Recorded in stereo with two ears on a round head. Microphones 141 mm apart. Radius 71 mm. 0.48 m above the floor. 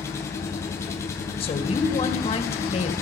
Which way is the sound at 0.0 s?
20° left (ahead or behind).